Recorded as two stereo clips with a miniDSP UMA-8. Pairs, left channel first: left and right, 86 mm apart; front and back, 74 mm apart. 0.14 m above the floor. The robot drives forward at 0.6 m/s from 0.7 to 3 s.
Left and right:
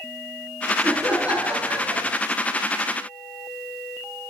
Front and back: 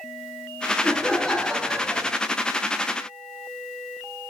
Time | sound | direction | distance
0.8 | laughter | 40° right | 1.7 m